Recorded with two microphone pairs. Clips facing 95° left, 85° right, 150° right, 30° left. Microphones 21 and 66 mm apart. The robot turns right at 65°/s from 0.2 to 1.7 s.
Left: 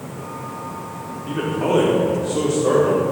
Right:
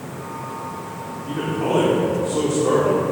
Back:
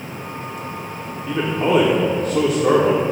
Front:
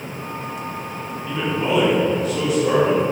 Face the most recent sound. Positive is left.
turn(degrees=170)